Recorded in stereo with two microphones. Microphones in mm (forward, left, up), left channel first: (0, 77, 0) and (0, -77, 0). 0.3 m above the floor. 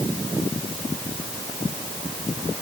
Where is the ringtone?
I don't hear a ringtone.